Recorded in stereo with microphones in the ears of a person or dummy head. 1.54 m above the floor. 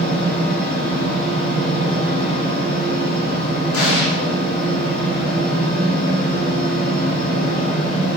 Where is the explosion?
75° left (ahead or behind), 0.9 m.